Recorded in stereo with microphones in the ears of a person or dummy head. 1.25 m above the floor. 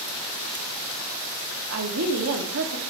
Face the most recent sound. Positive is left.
turn(degrees=-75)  # may be behind; listen again after turning